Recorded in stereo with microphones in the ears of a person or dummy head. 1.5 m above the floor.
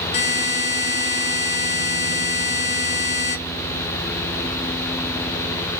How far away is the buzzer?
About 1.4 m.